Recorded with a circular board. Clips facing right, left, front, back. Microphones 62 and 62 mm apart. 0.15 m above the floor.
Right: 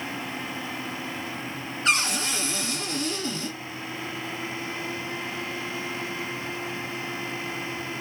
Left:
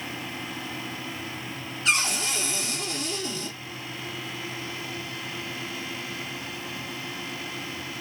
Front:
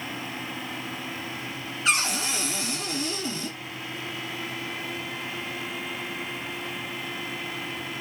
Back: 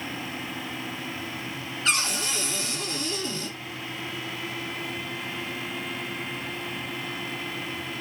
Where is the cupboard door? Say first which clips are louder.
Right 1 dB, front 2 dB; 70° right, 2 m.